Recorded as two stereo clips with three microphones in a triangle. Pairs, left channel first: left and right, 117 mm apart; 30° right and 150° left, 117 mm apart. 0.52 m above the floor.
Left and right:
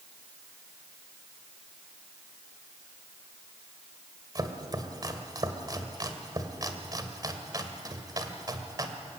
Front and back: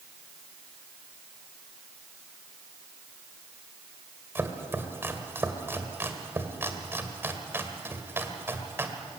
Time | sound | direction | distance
4.3 | chopping | 140° right | 2 m